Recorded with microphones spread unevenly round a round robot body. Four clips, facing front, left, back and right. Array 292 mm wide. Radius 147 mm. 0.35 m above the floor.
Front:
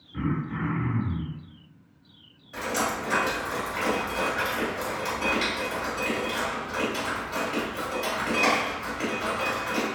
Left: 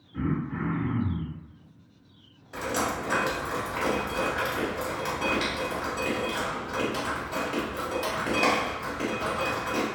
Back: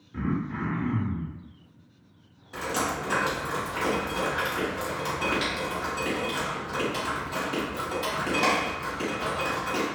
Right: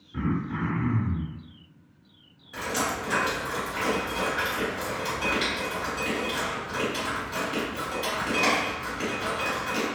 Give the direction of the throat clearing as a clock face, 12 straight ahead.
4 o'clock.